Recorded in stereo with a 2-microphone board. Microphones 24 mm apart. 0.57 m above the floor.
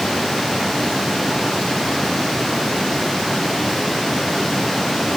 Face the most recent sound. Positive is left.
No sound to turn to.